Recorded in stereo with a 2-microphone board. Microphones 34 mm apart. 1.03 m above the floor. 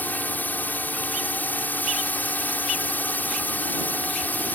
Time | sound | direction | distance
0.0 | a drone | 60° left (ahead or behind) | ?